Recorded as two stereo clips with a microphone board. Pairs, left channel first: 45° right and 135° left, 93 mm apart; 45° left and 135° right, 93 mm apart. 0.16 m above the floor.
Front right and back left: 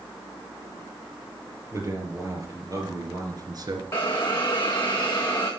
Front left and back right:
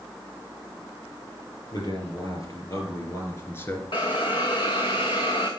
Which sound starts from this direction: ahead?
A hiss, at 3.9 s.